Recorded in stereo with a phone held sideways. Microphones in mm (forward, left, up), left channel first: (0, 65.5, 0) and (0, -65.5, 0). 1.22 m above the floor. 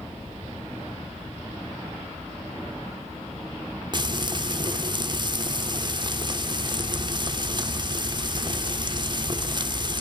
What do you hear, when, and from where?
3.9 s frying: 35° right (ahead or behind), 1.0 m